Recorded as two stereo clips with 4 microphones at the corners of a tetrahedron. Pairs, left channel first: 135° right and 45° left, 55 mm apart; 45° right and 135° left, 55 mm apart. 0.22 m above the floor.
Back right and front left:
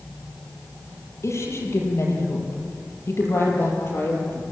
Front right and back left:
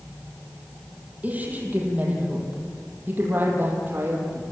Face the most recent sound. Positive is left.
turn(degrees=180)